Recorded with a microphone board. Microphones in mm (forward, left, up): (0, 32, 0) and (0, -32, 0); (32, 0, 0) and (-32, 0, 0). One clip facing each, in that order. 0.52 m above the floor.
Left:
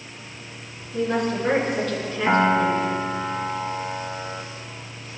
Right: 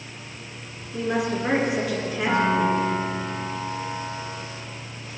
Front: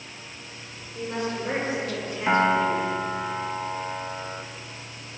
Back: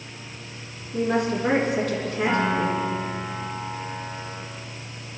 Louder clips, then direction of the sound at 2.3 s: Left 3 dB, front 3 dB; 45° left.